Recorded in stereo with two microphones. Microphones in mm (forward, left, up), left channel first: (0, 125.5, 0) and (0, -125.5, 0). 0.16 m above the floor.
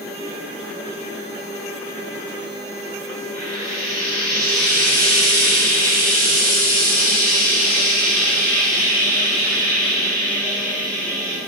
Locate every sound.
3.3 s frying: 35° right (ahead or behind), 4.5 m